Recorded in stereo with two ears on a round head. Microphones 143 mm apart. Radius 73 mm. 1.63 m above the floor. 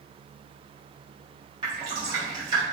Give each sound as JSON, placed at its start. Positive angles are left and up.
{"t": 1.6, "sound": "dripping", "side_deg": -25, "distance_m": 1.3}